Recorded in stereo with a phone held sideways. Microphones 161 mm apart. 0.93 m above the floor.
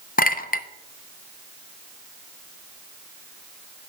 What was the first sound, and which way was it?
A clink, 60° left (ahead or behind).